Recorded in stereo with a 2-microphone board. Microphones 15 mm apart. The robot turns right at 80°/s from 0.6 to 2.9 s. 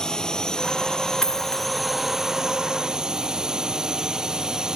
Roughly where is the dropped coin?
Ahead left.